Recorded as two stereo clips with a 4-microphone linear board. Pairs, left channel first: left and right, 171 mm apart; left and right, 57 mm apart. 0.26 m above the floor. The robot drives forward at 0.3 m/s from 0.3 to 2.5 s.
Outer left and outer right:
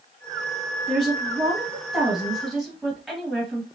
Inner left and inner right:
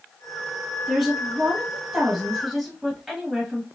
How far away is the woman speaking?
About 2.0 m.